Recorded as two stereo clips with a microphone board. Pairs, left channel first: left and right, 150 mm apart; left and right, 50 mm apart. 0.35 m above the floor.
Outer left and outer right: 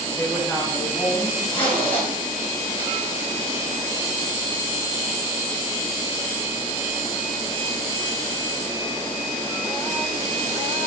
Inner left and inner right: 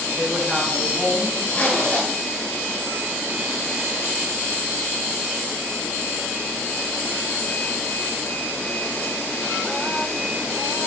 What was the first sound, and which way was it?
A woman speaking, 15° left (ahead or behind).